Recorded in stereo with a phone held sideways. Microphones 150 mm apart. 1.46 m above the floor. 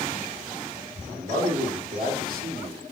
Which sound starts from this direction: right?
A man speaking, at 1.1 s.